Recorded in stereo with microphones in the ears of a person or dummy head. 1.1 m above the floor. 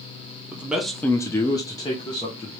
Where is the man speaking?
10° right (ahead or behind), 0.8 m; by 2.5 s 30° left (ahead or behind), 1.1 m.